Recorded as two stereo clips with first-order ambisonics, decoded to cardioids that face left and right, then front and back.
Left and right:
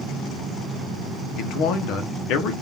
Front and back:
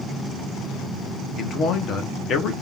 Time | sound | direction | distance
1.4 | a man speaking | 55° left | 1.0 m